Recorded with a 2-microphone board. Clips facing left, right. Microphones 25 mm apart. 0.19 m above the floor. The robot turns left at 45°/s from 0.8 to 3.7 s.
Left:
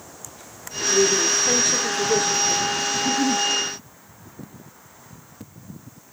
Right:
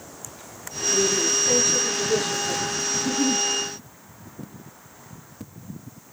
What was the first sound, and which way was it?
A woman speaking, 95° left.